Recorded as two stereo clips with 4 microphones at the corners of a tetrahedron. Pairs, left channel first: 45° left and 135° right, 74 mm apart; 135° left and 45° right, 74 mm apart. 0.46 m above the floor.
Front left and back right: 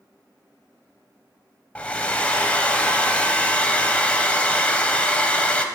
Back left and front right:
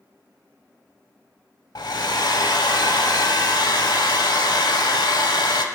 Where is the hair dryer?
120° left, 0.6 m.